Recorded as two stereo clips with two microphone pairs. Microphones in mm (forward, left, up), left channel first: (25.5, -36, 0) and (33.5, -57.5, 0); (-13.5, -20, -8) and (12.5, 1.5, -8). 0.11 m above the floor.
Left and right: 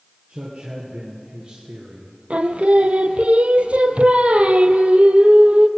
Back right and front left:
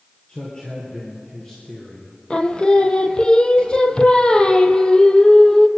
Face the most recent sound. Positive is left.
turn(degrees=-80)